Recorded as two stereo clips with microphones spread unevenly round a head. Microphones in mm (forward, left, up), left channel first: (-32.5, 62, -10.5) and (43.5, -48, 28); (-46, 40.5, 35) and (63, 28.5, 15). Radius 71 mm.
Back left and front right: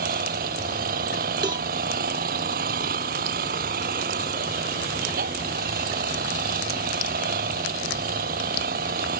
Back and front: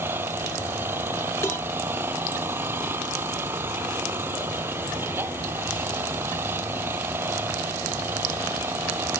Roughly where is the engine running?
Right.